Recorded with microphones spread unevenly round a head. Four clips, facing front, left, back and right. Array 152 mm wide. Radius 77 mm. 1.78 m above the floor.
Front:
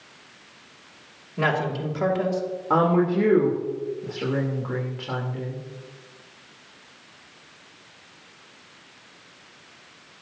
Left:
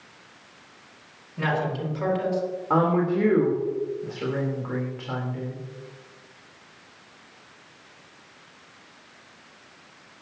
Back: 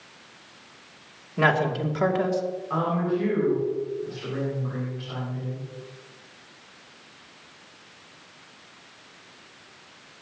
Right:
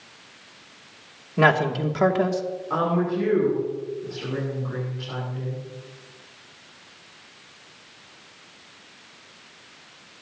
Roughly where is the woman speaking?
Ahead left.